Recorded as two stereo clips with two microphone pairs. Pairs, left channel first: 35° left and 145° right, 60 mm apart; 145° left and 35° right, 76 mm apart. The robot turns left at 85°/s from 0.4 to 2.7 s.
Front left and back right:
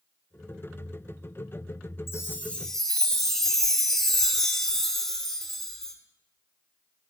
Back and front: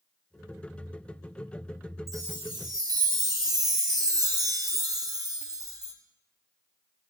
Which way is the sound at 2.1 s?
Straight ahead.